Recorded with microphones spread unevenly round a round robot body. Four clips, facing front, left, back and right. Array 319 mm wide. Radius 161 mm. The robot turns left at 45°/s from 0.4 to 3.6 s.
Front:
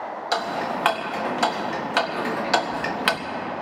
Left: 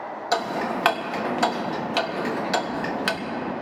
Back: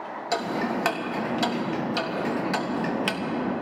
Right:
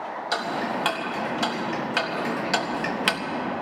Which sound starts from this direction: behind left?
Ticking, at 0.3 s.